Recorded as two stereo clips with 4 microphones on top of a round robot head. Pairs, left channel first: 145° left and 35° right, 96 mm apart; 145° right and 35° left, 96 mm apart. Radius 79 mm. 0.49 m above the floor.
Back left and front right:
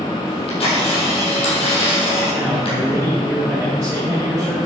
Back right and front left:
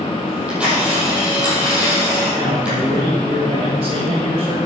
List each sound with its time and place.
0.3 s a camera shutter: 115° left, 4.5 m
2.3 s a man speaking: 35° left, 3 m